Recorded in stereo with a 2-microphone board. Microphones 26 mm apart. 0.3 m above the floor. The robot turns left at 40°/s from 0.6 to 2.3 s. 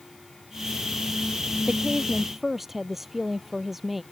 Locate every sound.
1.7 s a woman speaking: 35° right (ahead or behind); by 4.0 s 10° right (ahead or behind)